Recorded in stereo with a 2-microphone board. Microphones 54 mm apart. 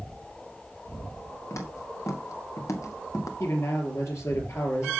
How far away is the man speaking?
About 3.5 m.